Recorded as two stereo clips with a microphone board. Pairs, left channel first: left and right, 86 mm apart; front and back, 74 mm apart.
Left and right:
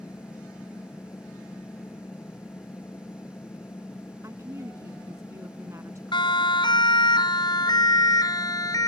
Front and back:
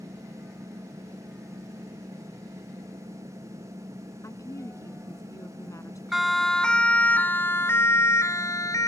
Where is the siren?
95° left; by 8.9 s 40° left.